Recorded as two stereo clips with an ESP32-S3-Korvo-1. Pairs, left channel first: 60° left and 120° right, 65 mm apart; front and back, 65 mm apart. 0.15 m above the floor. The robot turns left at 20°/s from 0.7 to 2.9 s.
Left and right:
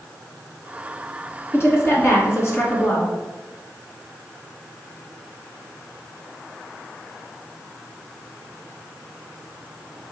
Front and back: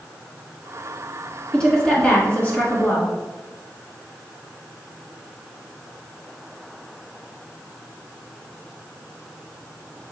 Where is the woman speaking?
70° left, 1.4 m; by 3.1 s 45° left, 1.4 m.